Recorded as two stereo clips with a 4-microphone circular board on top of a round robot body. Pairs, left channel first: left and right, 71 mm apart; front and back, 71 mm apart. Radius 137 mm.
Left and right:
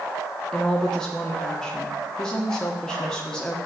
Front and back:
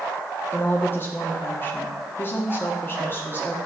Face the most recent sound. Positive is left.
turn(degrees=15)